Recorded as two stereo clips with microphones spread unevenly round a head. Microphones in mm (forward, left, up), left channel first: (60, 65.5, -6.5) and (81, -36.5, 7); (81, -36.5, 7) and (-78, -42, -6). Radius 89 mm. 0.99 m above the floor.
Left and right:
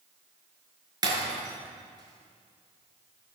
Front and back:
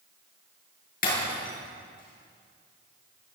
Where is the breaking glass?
30° right, 6 m.